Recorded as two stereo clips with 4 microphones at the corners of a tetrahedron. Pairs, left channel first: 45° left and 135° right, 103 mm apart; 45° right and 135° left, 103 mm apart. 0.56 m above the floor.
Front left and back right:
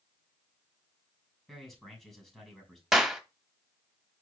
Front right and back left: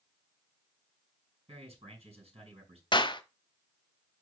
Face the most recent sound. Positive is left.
turn(degrees=-50)